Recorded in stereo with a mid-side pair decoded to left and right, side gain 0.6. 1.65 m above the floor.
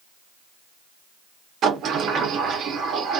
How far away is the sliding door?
About 1.0 m.